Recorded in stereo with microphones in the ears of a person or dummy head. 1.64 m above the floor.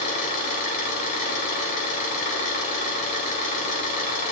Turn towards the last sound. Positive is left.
turn(degrees=40)  # may be behind; listen again after turning